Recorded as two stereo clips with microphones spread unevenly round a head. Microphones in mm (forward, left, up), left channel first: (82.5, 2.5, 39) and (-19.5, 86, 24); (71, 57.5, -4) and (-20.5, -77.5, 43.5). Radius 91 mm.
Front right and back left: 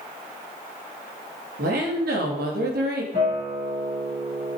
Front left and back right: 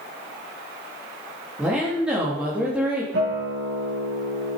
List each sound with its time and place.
1.6 s a woman speaking: 155° left, 3 m
3.1 s a guitar: 165° right, 5.5 m